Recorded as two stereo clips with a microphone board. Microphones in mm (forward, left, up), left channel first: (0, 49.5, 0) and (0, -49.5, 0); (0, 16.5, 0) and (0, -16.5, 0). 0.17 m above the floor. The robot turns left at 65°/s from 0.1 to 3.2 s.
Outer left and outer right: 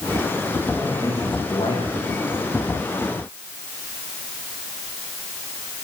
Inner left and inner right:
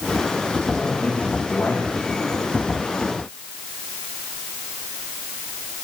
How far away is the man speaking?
About 10 m.